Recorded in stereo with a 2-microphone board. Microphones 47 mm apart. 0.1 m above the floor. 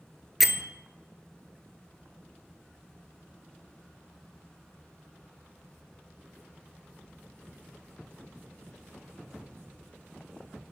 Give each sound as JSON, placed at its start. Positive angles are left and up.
{"t": 0.4, "sound": "a bell", "side_deg": 0, "distance_m": 0.6}